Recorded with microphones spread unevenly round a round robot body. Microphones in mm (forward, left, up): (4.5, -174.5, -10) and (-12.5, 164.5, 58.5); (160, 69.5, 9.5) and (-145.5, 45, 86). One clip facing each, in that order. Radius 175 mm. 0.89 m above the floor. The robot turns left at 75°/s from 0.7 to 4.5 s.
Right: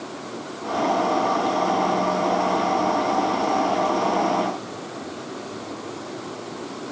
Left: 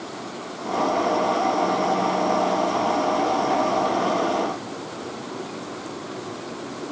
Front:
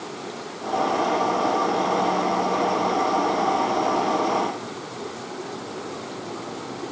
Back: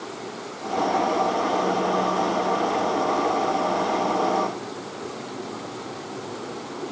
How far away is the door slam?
I don't hear a door slam.